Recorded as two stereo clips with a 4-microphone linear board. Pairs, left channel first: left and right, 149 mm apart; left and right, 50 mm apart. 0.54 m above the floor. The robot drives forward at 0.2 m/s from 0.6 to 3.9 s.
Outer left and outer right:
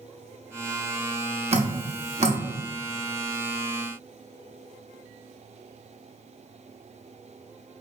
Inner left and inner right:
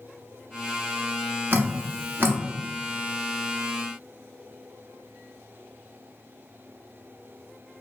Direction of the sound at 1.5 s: 45° right (ahead or behind).